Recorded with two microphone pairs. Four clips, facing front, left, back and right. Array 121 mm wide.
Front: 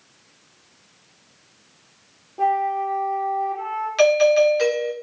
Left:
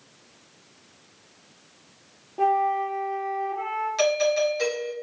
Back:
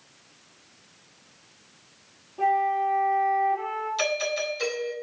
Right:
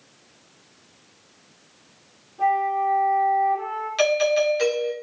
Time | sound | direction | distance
2.4 | a flute | 65° left | 5 m
4.0 | a doorbell | 10° right | 3 m